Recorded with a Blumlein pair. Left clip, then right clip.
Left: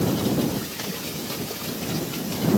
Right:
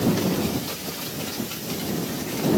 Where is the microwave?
I don't hear a microwave.